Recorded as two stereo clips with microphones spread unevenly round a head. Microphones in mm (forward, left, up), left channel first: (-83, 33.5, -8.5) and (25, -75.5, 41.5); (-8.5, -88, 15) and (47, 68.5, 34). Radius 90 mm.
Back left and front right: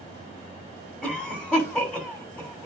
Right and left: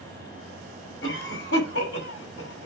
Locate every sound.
1.0 s a cough: 140° right, 6.5 m